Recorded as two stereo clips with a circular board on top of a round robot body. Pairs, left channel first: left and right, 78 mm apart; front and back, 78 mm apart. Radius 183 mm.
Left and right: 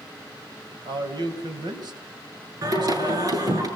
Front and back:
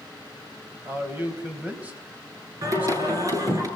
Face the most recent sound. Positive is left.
turn(degrees=-135)